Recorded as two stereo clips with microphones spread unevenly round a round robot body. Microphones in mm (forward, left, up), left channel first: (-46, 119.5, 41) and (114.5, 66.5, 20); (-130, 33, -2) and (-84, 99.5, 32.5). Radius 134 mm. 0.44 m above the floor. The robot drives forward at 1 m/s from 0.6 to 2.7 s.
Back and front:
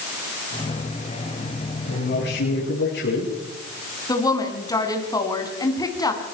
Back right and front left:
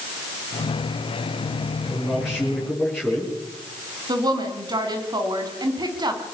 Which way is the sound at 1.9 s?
145° left.